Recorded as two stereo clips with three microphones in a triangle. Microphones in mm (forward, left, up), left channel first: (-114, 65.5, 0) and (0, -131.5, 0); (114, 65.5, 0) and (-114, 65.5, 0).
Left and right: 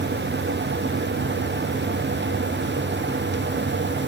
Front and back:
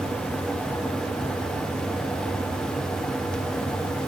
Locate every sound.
Only background noise.